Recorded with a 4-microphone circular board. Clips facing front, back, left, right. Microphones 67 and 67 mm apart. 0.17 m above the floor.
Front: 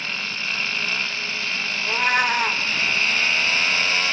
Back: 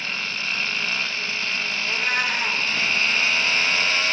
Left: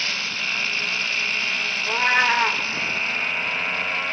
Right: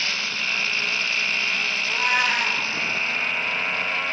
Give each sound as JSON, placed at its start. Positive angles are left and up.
{"t": 1.8, "sound": "a cat meowing", "azimuth_deg": 30, "distance_m": 1.3}